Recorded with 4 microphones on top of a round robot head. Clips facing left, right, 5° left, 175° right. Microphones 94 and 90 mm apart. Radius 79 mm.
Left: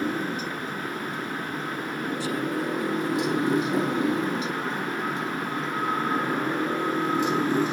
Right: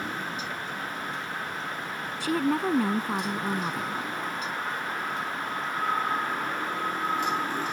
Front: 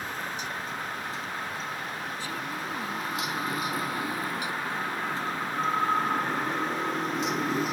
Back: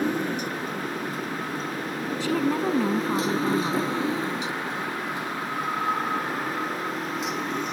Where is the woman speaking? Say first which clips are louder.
Right 5 dB, back 11 dB; 135° right.